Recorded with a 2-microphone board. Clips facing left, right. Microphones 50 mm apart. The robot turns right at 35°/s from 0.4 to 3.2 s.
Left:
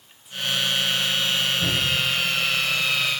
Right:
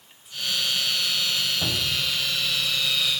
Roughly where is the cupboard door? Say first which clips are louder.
Left 4 dB; right.